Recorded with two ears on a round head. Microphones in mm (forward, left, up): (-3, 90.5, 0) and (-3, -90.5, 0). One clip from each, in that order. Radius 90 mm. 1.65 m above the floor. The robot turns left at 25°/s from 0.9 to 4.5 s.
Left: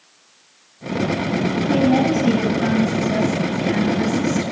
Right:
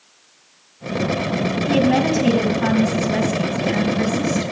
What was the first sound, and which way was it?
A woman speaking, 115° right.